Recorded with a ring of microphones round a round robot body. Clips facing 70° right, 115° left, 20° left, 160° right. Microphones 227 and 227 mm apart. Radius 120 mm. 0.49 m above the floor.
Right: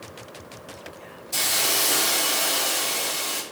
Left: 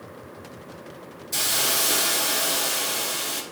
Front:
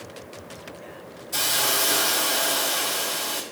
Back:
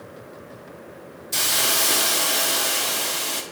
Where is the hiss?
170° left, 1.1 m.